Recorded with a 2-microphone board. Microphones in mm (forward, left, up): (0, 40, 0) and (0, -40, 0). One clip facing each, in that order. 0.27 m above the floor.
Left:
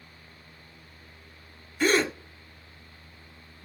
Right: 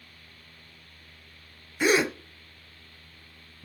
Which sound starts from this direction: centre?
A gasp, at 1.8 s.